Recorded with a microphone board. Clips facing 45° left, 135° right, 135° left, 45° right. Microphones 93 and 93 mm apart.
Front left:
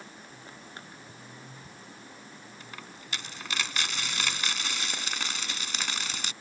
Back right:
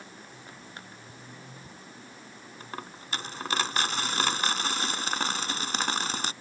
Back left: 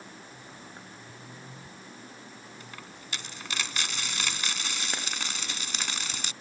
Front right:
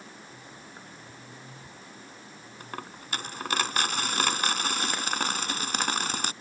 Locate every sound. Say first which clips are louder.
2.6 s a dropped coin: back right 8 dB, front right 5 dB; 85° right